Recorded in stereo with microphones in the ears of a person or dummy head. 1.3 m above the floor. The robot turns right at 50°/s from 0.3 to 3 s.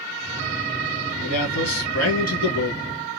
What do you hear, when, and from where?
1.2 s a man speaking: 50° left, 2 m; by 2.8 s 130° left, 2 m